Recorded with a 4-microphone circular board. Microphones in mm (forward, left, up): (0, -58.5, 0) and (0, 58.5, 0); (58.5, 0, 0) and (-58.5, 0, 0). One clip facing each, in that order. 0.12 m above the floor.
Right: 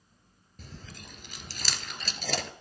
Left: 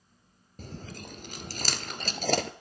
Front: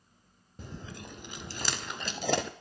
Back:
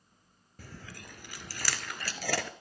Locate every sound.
0.6 s chewing: 65° left, 0.7 m